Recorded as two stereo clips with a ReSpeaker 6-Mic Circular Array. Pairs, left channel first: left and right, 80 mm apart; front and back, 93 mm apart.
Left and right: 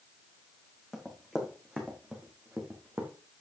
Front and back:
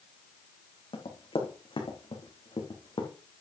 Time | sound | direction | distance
0.9 | running footsteps | straight ahead | 4 m